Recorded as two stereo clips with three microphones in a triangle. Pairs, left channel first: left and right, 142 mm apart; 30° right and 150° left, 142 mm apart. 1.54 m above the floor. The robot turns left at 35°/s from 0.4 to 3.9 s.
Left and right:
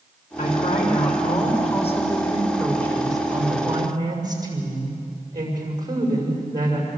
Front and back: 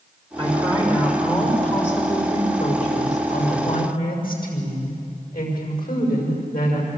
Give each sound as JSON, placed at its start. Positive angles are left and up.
{"t": 0.4, "sound": "a woman speaking", "azimuth_deg": 95, "distance_m": 6.5}